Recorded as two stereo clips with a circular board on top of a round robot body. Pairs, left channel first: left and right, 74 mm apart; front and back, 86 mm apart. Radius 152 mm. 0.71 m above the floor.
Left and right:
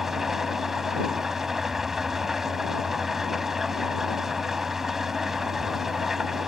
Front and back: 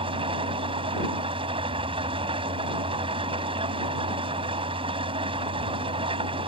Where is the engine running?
175° right.